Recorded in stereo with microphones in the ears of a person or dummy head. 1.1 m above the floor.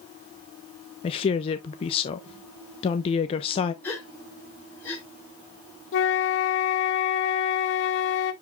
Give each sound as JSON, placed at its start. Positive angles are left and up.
{"t": 1.0, "sound": "a woman speaking", "side_deg": 30, "distance_m": 0.7}
{"t": 3.8, "sound": "a gasp", "side_deg": 15, "distance_m": 3.5}
{"t": 5.9, "sound": "a flute", "side_deg": 60, "distance_m": 1.2}